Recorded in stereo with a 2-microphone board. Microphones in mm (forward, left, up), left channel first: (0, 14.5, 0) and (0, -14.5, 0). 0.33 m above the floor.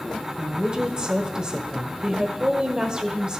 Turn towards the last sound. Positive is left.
turn(degrees=-30)  # may be behind; listen again after turning